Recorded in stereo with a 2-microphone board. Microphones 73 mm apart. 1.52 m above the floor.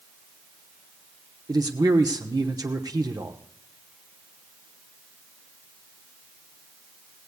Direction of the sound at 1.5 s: 65° right (ahead or behind).